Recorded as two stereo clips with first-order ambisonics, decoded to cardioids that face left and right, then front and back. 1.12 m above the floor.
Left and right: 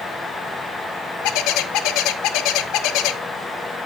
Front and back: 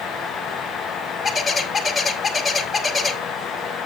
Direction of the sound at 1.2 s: 80° left.